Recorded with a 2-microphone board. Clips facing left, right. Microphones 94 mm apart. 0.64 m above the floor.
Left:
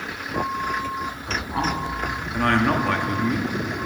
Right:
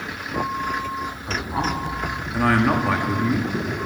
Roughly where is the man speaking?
Centre.